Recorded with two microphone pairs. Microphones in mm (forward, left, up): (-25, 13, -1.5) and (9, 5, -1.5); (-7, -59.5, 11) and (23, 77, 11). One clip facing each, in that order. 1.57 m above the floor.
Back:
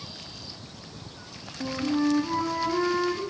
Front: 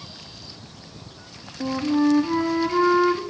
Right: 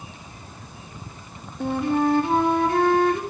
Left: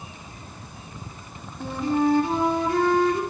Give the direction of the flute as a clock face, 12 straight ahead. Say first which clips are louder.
Front 5 dB, right 1 dB; 3 o'clock.